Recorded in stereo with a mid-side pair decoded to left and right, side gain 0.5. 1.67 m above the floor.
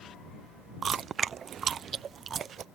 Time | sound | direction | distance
0.8 | chewing | 45° right | ?